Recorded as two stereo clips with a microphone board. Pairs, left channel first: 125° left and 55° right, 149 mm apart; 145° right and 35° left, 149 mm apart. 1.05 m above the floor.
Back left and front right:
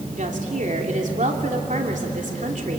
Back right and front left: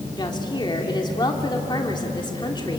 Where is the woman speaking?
85° right, 3 m.